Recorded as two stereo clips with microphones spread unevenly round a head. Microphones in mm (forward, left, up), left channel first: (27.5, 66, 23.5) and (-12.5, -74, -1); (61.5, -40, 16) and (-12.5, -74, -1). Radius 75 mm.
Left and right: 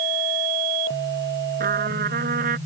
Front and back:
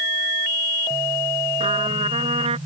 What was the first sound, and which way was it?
A trumpet, 145° right.